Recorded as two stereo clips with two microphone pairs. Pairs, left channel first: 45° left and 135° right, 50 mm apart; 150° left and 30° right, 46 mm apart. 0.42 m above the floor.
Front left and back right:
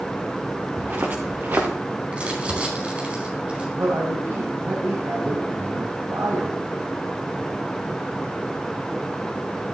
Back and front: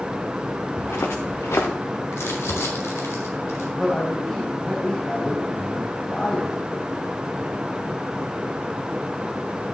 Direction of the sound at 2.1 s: 160° left.